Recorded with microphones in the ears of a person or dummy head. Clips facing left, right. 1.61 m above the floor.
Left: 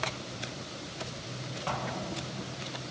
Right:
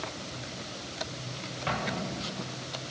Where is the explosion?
20° right (ahead or behind), 1.7 m.